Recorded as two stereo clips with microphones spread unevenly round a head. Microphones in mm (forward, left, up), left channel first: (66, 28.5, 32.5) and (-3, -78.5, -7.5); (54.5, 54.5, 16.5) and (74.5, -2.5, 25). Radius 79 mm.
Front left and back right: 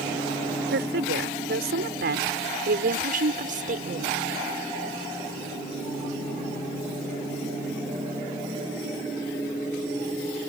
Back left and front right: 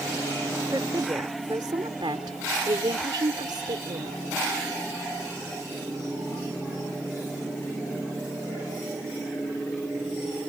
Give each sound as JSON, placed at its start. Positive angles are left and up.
{"t": 0.7, "sound": "a woman speaking", "azimuth_deg": -140}